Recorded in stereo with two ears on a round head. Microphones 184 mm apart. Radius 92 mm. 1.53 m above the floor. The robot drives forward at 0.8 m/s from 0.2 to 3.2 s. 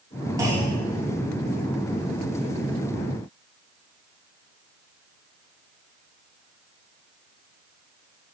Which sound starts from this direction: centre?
A clunk, at 0.4 s.